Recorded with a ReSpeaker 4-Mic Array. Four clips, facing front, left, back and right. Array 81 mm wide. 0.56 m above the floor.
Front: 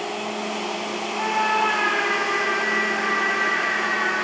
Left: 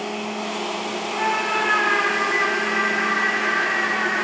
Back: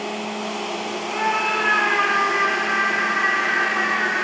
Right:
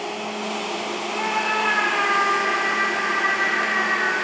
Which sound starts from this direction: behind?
A scream, at 1.1 s.